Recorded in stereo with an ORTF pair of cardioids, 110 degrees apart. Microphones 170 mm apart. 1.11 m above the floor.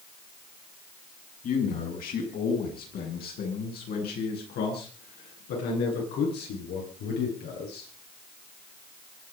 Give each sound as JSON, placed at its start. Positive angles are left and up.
{"t": 1.4, "sound": "a man speaking", "azimuth_deg": 55, "distance_m": 7.5}